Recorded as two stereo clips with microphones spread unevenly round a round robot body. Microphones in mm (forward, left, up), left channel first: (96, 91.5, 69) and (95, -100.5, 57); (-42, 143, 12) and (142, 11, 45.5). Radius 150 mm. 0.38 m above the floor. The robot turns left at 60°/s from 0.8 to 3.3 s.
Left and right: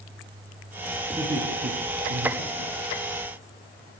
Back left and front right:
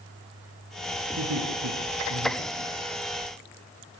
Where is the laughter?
15° right, 7 m; by 3.1 s 135° right, 7 m.